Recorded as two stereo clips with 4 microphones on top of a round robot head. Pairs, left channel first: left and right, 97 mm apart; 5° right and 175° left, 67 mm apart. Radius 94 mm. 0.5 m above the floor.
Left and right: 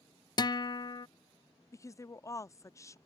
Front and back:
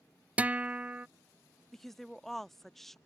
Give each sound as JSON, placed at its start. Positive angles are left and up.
{"t": 0.4, "sound": "a guitar", "azimuth_deg": 110}
{"t": 1.7, "sound": "a woman speaking", "azimuth_deg": 75}